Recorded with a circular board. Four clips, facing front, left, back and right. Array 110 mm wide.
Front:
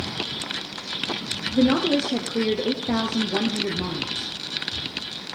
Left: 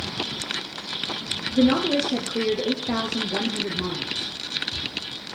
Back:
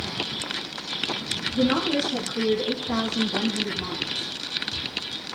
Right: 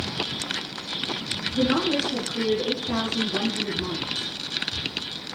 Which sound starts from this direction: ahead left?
A woman speaking, at 1.5 s.